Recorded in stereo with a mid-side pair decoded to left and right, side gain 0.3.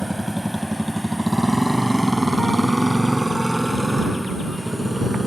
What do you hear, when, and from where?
0.0 s a motorcycle: 10° right; by 5.3 s 20° right